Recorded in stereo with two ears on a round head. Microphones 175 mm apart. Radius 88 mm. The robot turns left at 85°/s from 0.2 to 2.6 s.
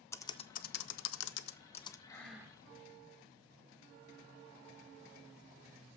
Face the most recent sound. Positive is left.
turn(degrees=-25)